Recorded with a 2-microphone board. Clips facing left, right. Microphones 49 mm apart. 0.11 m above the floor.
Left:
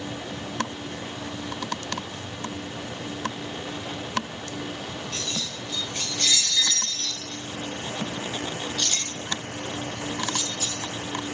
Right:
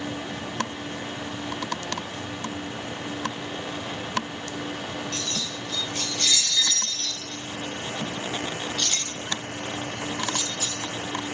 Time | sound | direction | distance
5.1 | keys jangling | 10° left (ahead or behind) | 1.9 m